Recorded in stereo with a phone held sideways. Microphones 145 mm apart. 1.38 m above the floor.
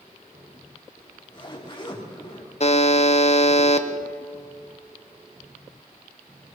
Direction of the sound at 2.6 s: 50° left (ahead or behind).